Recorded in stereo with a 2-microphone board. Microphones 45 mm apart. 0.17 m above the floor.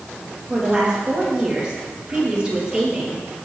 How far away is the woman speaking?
About 4.5 m.